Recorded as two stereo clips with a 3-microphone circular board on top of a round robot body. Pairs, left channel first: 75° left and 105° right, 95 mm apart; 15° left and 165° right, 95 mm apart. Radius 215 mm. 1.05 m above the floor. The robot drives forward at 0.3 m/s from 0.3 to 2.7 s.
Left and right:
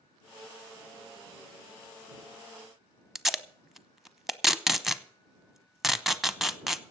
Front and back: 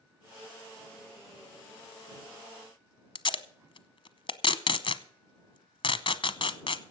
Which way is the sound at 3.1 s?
20° right.